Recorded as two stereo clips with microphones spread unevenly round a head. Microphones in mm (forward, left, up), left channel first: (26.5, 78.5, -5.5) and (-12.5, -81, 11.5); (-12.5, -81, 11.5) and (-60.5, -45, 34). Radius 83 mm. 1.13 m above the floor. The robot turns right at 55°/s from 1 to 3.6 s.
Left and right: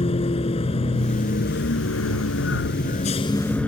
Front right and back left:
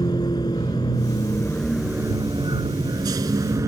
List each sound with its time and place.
0.0 s a vehicle: 15° left; by 3.7 s 160° left